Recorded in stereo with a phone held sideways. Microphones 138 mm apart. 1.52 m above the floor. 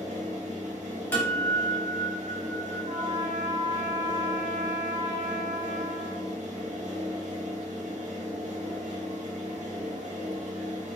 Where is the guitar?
10° left (ahead or behind), 0.9 m.